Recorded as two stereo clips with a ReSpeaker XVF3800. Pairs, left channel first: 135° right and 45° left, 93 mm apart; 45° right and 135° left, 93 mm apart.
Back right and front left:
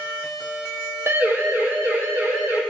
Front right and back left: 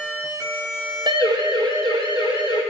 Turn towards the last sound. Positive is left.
turn(degrees=105)